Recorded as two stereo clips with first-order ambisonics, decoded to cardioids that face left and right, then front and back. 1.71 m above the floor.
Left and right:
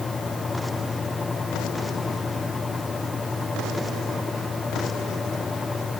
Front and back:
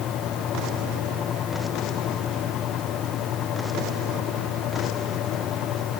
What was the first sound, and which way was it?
Only background noise.